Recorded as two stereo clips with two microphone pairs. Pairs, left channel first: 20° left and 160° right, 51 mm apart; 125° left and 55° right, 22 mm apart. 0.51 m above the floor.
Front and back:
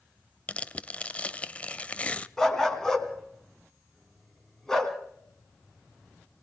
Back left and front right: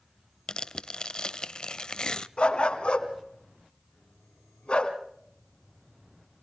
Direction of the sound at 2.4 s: 100° left.